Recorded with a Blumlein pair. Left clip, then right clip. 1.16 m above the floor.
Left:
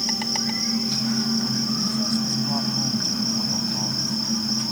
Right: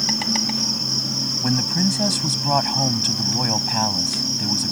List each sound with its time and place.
0.0 s an insect: 10° right
1.4 s a man speaking: 35° right